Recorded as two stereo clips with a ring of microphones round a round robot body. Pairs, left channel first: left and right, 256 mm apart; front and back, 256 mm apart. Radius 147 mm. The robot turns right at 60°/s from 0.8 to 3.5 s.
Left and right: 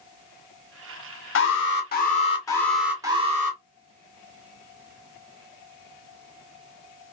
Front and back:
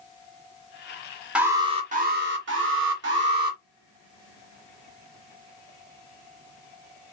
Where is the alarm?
95° left, 1.6 m; by 3.6 s 135° right, 1.6 m.